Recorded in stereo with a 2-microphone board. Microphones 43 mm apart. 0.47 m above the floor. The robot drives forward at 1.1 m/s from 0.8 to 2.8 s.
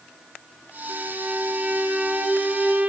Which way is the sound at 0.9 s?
65° right (ahead or behind).